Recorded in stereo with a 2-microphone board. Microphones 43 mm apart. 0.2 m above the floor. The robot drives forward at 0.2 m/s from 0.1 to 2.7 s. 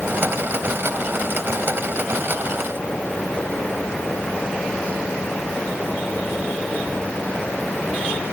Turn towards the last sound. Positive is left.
No sound to turn to.